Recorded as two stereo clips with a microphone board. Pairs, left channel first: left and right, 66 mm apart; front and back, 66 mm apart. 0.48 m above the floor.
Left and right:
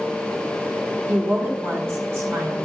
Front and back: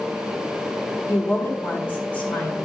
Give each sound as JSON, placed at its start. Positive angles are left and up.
{"t": 1.1, "sound": "a woman speaking", "azimuth_deg": -30, "distance_m": 1.2}